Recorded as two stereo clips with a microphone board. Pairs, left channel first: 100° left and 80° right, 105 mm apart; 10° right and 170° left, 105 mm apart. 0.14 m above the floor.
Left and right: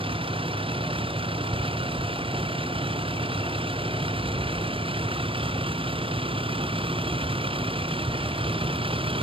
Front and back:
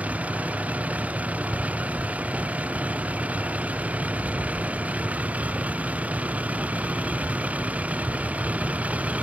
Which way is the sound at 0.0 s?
115° right.